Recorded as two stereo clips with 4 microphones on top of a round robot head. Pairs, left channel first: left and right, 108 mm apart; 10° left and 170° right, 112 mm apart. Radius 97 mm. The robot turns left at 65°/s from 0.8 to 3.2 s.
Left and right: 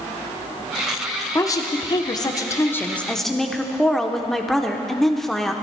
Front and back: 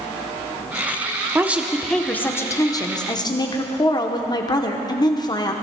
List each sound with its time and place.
1.4 s a woman speaking: 125° left, 1.1 m; by 5.5 s 5° left, 1.1 m